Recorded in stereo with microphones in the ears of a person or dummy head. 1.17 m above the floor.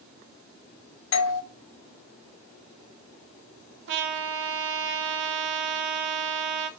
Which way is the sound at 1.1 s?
70° left (ahead or behind).